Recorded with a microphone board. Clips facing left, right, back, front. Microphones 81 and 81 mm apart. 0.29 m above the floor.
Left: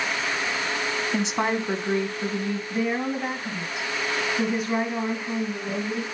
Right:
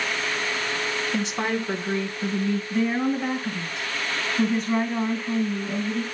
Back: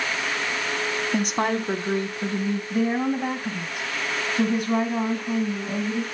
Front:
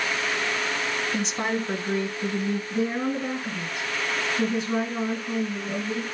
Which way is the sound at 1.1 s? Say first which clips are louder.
Left 2 dB, back 6 dB; 155° left.